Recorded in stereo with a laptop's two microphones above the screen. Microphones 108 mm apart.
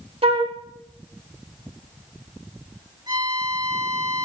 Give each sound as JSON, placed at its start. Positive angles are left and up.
{"t": 0.2, "sound": "a flute", "side_deg": -60, "distance_m": 1.2}
{"t": 3.1, "sound": "a violin", "side_deg": -40, "distance_m": 4.5}